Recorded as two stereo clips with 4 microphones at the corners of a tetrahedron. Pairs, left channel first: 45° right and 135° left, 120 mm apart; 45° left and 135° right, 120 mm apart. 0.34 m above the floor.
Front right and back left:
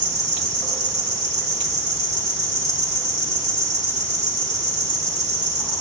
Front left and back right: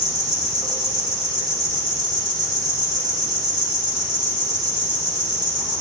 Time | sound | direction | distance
0.0 | an insect | 175° right | 1.9 m